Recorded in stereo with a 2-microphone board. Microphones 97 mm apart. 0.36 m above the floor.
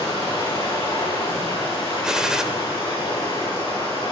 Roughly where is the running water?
Left.